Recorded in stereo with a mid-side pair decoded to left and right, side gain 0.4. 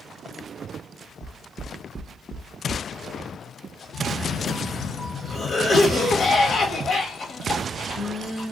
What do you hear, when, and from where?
1.2 s knocking: 40° right, 0.6 m
3.9 s a cough: 55° left, 0.8 m